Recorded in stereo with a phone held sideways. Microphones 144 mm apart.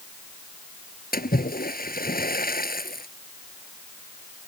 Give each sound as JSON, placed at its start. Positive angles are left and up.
{"t": 1.1, "sound": "a splash", "side_deg": 85}